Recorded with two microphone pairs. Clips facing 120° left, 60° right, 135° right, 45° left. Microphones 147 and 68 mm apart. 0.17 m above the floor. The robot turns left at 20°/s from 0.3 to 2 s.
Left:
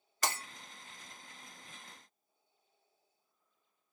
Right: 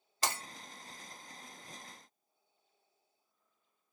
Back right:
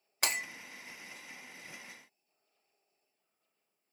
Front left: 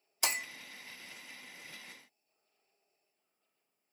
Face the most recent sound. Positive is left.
turn(degrees=-150)